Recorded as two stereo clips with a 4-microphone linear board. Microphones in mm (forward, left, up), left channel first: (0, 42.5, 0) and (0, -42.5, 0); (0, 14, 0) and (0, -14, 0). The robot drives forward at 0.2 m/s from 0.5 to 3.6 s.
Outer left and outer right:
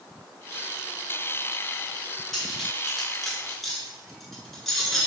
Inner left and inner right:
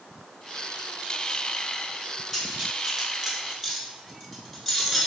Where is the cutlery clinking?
5° left (ahead or behind), 0.6 m; by 5.1 s centre (ahead or behind), 0.7 m.